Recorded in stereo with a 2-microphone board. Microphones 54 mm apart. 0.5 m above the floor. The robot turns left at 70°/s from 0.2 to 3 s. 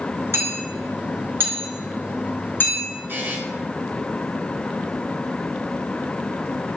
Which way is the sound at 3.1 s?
40° right (ahead or behind).